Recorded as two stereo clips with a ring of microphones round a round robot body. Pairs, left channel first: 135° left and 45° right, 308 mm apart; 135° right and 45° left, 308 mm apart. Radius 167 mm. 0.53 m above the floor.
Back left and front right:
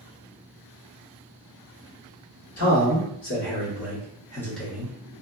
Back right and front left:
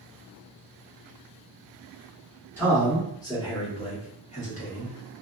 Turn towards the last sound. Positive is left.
turn(degrees=-115)